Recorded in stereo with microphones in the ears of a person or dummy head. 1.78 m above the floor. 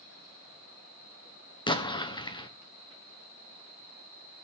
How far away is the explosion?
About 1.3 m.